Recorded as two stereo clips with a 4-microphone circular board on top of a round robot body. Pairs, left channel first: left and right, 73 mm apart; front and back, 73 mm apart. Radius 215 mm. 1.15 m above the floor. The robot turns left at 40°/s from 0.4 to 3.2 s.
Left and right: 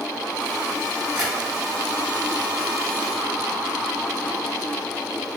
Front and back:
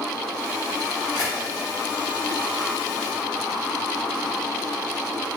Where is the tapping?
45° right, 1.3 m; by 1.3 s 55° right, 1.3 m.